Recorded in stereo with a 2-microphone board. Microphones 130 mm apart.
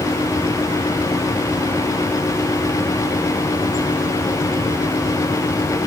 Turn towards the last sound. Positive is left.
No sound to turn to.